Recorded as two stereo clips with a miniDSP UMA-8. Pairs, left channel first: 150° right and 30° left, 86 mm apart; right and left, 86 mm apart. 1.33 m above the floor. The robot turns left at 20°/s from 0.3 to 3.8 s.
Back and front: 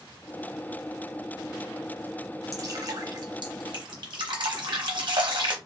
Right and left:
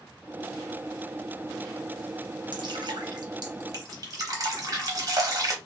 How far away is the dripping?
About 0.8 m.